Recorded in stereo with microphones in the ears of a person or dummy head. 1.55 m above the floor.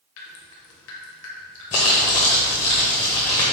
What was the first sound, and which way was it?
Dripping, 70° left (ahead or behind).